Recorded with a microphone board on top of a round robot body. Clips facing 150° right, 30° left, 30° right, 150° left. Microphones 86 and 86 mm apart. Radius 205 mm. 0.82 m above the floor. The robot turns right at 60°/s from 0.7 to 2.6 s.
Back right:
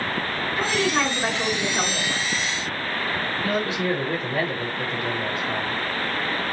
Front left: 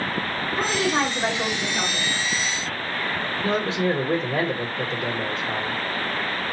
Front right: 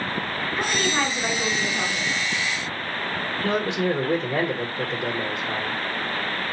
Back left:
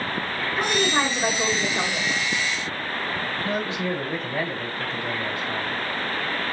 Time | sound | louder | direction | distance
0.6 | a woman speaking | even, back left 2 dB | 65° left | 2 m
3.4 | a man speaking | front left 2 dB, front right 5 dB | 20° right | 1.1 m